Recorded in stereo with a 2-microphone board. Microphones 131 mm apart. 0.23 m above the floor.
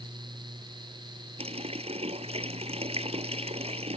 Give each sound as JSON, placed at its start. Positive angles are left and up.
{"t": 1.4, "sound": "a running tap", "side_deg": -50}